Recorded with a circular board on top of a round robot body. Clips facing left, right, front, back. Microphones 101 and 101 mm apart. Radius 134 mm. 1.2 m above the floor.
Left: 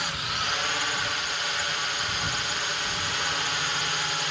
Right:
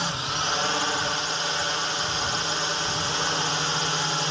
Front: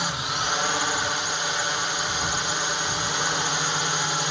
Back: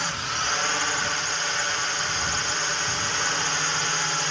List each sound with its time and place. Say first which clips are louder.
0.0 s a drone: right 3 dB, front 1 dB; 65° right